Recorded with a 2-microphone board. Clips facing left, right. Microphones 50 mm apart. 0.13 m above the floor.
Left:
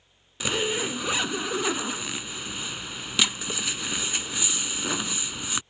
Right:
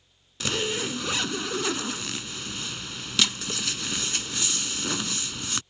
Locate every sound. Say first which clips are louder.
0.4 s a zipper: left 1 dB; 10° left (ahead or behind)